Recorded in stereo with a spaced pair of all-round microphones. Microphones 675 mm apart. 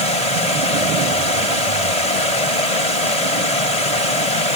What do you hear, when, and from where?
0.0 s running water: 65° left (ahead or behind)